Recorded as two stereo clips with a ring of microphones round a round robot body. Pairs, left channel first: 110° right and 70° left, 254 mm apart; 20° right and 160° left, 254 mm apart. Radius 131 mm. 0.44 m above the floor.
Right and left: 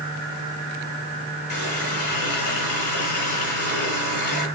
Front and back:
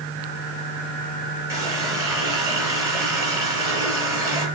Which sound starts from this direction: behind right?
A running tap, at 1.5 s.